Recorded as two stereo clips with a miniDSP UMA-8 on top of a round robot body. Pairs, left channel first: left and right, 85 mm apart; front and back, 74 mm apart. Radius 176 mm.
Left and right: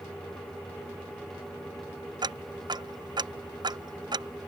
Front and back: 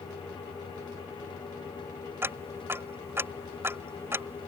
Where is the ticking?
125° right.